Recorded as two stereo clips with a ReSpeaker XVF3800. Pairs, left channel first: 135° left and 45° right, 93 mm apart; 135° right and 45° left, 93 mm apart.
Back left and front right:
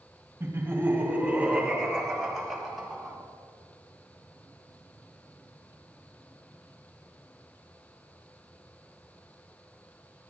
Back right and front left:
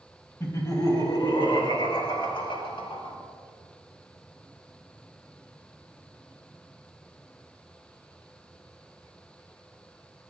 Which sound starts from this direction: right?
Laughter, at 0.4 s.